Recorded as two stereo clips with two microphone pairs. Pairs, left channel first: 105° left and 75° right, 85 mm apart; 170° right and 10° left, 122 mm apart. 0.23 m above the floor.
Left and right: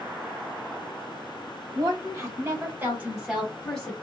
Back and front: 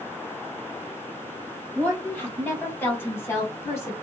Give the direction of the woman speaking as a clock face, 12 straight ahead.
3 o'clock.